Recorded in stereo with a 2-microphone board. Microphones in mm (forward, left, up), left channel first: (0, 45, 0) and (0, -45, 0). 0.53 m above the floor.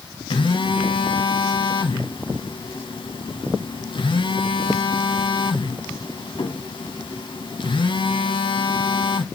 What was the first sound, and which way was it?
A phone buzzing, 65° left (ahead or behind).